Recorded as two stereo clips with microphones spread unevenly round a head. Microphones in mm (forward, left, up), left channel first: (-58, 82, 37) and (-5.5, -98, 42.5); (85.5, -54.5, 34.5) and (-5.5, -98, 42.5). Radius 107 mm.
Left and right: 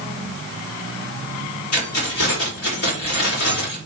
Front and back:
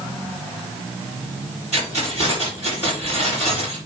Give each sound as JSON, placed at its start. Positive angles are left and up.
{"t": 1.7, "sound": "keys jangling", "azimuth_deg": 85, "distance_m": 5.0}